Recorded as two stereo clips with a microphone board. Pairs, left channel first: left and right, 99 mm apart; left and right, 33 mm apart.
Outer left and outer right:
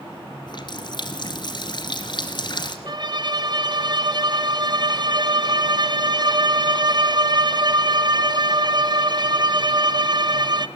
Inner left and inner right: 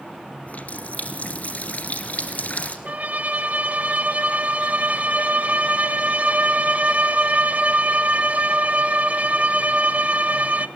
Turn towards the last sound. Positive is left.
turn(degrees=-45)  # may be behind; listen again after turning